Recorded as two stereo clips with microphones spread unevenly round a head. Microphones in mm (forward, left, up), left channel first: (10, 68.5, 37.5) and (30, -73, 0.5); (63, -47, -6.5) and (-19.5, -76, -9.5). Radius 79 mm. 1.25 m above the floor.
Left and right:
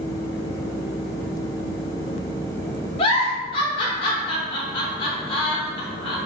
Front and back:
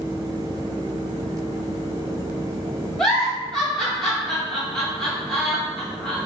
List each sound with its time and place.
3.0 s a giggle: 100° left, 0.6 m